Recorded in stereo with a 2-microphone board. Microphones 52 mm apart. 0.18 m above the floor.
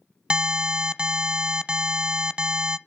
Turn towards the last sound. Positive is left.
turn(degrees=-20)  # may be behind; listen again after turning